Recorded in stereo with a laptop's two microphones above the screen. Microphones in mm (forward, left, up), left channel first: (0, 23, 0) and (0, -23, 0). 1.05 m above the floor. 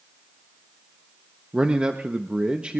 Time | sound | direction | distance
1.5 | a man speaking | 25° right (ahead or behind) | 0.9 m